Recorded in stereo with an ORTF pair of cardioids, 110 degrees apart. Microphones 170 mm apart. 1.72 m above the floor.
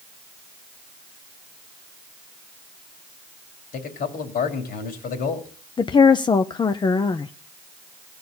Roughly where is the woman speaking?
Ahead left.